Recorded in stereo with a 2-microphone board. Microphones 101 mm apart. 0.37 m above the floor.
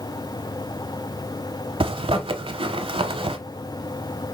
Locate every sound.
1.8 s a zipper: 60° right (ahead or behind), 0.6 m